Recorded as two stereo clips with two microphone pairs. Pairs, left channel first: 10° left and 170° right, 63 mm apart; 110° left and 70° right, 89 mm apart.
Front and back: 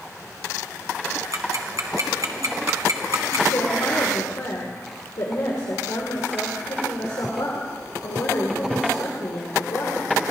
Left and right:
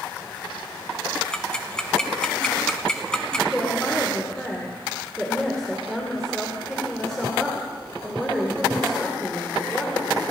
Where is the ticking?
175° right, 1.4 m.